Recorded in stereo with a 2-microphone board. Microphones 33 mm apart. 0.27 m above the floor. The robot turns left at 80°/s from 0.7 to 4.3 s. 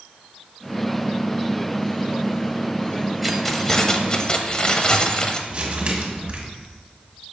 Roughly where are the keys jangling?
Centre.